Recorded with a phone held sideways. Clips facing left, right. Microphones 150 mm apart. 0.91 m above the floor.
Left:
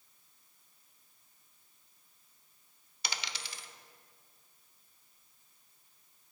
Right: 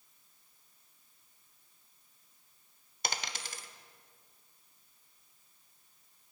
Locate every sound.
3.0 s a dropped coin: 45° right (ahead or behind), 0.7 m